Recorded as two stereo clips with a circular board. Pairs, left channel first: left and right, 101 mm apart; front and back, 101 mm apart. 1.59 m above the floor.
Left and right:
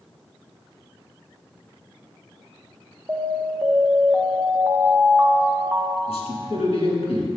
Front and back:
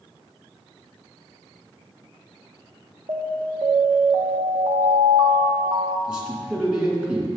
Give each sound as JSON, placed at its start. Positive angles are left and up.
{"t": 3.1, "sound": "an alarm", "azimuth_deg": -160, "distance_m": 0.6}
{"t": 6.1, "sound": "a man speaking", "azimuth_deg": 105, "distance_m": 2.0}